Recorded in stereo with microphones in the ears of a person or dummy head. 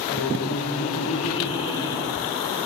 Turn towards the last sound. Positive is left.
turn(degrees=20)  # may be behind; listen again after turning